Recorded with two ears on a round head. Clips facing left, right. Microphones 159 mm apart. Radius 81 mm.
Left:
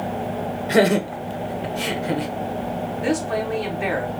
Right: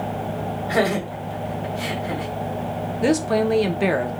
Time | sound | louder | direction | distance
0.7 | laughter | left 5 dB | 30° left (ahead or behind) | 0.7 m
3.0 | a woman speaking | right 5 dB | 50° right (ahead or behind) | 0.8 m